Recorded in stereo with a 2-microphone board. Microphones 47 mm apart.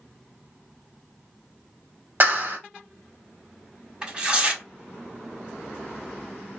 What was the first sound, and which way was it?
A clap, 45° right (ahead or behind).